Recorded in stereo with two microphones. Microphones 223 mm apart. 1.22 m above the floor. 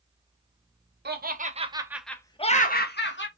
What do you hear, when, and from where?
1.1 s laughter: 50° right (ahead or behind), 0.7 m; by 3.3 s 55° left (ahead or behind), 0.8 m